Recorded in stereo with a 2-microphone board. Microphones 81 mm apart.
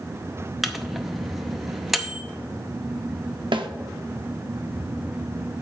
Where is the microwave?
Centre (ahead or behind), 0.6 m.